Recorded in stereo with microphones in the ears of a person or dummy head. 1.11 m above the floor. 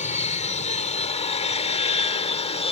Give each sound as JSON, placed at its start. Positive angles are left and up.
{"t": 0.0, "sound": "an aircraft", "side_deg": 35}